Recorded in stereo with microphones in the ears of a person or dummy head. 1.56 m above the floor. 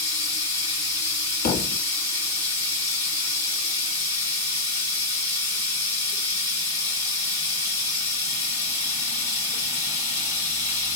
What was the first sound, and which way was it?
Running water, 20° right (ahead or behind).